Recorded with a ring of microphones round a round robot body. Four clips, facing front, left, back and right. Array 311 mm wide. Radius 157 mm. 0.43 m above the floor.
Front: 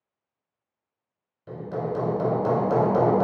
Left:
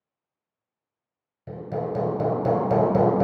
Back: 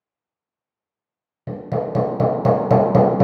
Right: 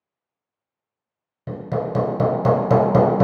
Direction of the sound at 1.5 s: 150° right.